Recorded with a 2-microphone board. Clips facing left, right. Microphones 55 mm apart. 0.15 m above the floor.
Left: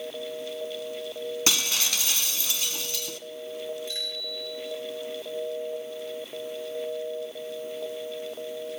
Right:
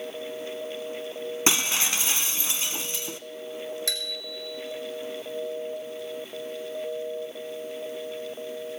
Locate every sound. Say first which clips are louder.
1.5 s breaking glass: right 4 dB; 25° right (ahead or behind), 0.9 m
3.9 s a bicycle bell: right 1 dB; 80° right, 6 m